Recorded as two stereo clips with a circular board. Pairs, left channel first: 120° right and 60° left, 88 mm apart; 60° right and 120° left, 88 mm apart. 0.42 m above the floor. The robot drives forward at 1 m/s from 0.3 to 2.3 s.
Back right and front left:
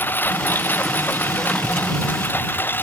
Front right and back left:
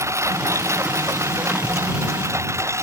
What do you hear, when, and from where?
0.0 s a lawn mower: 175° left